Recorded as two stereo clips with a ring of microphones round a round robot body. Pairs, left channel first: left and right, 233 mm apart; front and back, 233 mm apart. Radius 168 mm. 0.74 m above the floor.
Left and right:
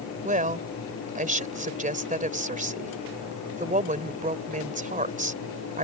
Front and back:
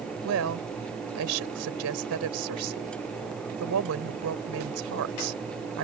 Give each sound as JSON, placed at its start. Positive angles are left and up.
{"t": 0.2, "sound": "a woman speaking", "azimuth_deg": -145}